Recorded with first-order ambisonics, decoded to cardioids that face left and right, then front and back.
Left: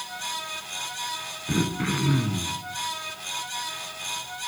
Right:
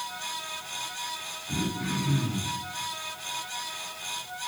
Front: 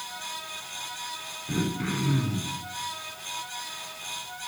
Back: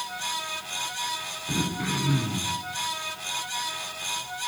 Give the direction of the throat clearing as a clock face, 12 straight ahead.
9 o'clock.